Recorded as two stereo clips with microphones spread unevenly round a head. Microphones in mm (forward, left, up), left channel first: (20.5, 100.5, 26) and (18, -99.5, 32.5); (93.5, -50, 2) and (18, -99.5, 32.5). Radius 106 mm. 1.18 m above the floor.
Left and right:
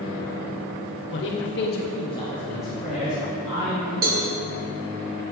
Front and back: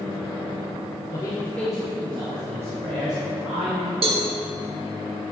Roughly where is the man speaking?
Left.